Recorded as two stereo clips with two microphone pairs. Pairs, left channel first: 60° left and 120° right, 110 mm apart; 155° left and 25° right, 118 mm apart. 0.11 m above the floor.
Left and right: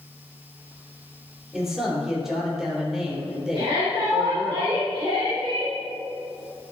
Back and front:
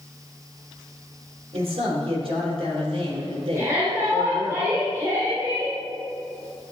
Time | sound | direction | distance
1.5 | a man speaking | 35° right | 3.5 m
3.5 | a shout | 85° right | 3.5 m